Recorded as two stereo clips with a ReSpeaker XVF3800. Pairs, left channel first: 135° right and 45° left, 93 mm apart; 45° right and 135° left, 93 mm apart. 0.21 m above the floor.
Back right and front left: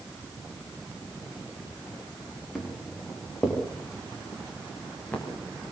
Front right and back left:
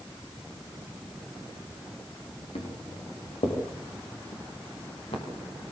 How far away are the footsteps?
About 8 m.